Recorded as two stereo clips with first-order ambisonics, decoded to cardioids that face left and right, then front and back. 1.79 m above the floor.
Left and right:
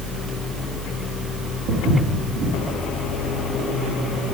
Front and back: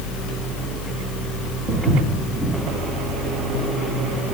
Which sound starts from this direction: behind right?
Footsteps, at 1.7 s.